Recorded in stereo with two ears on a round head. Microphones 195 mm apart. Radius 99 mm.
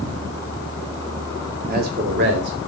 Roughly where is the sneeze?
No sneeze in this recording.